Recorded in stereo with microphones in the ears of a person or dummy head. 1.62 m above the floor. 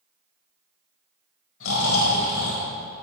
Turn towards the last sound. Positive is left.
turn(degrees=85)